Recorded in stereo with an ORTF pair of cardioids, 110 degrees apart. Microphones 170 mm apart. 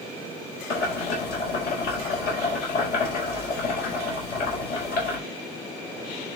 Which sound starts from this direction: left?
Boiling, at 0.7 s.